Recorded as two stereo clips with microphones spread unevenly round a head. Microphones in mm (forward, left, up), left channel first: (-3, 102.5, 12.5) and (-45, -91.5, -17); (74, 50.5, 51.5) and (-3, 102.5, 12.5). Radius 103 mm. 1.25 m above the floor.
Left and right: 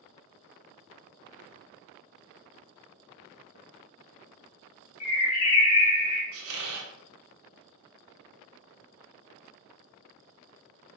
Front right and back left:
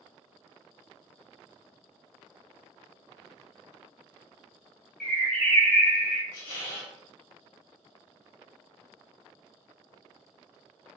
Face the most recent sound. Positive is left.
turn(degrees=-85)